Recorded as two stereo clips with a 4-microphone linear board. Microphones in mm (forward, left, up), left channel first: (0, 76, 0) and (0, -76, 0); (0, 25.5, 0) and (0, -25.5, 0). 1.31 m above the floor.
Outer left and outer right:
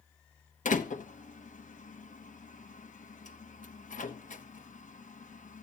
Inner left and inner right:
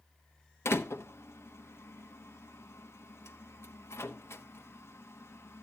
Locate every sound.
0.7 s a door slam: 60° left (ahead or behind), 1.0 m